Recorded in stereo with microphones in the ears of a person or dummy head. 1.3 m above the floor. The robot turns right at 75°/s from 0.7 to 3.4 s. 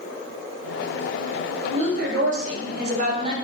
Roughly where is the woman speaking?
Behind right.